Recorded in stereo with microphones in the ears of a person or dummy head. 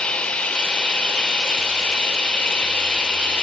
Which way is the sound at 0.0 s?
10° left (ahead or behind).